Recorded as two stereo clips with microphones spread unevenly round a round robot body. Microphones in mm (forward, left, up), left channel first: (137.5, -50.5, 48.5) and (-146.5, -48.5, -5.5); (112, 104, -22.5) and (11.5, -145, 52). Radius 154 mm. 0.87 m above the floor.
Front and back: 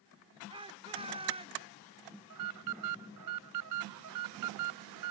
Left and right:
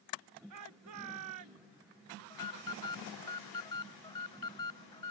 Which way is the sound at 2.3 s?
145° left.